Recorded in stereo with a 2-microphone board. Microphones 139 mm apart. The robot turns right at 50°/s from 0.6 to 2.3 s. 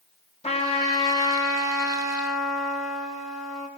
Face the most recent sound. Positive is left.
turn(degrees=175)